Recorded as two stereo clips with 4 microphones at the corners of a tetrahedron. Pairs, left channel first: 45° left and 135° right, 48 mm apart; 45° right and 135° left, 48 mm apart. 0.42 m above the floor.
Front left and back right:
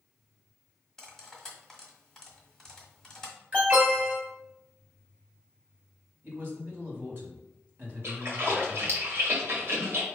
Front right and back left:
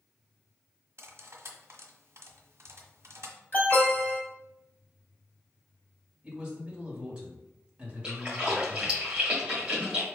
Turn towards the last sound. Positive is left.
turn(degrees=-155)